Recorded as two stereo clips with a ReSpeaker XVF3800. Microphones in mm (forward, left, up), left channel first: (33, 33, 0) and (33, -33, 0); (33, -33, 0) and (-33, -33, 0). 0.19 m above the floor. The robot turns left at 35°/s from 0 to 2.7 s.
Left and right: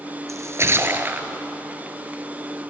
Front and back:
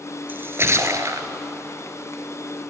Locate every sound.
0.3 s a splash: 120° right, 1.1 m; by 1.3 s 155° right, 1.1 m